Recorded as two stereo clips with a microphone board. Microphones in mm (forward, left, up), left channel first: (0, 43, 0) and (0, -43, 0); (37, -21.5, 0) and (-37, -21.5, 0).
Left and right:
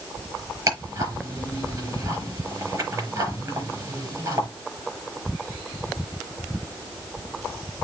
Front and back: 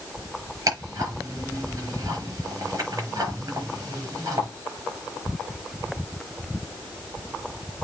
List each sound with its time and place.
0.7 s ticking: 140° right, 5.5 m